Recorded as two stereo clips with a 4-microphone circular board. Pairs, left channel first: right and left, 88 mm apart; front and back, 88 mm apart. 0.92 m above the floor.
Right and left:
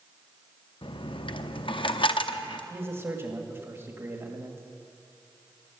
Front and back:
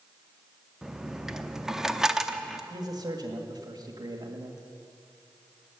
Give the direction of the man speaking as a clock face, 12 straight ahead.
7 o'clock.